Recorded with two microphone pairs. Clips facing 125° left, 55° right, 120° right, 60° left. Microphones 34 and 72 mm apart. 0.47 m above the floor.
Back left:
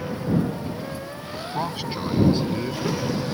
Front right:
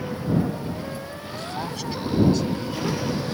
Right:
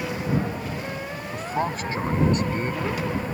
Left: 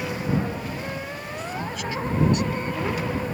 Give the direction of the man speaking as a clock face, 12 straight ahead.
6 o'clock.